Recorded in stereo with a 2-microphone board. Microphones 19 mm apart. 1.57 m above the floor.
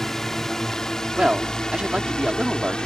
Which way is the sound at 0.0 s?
20° left (ahead or behind).